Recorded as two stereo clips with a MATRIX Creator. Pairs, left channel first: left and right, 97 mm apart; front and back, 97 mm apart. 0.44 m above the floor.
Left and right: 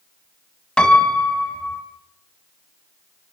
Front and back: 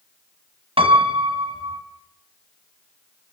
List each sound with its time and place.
0.8 s a piano: 170° left, 3 m